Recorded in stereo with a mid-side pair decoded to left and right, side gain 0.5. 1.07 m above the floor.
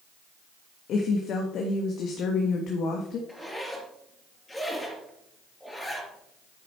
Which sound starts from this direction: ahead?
A zipper, at 3.3 s.